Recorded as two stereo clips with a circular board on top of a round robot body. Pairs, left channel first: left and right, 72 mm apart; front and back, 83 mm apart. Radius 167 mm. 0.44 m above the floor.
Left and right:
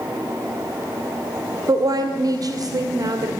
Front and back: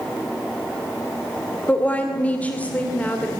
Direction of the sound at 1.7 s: 70° right.